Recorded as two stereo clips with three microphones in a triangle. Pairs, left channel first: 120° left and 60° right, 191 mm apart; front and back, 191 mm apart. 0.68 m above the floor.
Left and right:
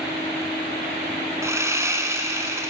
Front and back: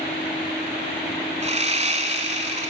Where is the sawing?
130° right, 0.9 m.